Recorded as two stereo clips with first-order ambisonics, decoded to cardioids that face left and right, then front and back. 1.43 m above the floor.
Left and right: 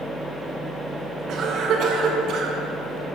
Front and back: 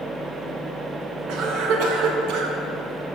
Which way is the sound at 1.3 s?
140° right.